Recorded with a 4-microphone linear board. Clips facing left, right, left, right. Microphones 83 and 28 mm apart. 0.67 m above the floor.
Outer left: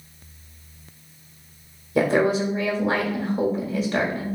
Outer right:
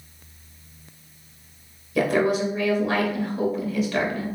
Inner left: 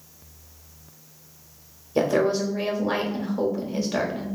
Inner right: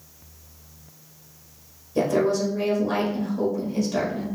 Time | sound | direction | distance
1.9 | a woman speaking | 30° left (ahead or behind) | 1.0 m